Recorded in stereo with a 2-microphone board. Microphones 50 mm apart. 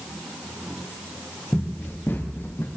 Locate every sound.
1.5 s running footsteps: 45° left (ahead or behind), 4.5 m; by 2.7 s 55° left (ahead or behind), 5 m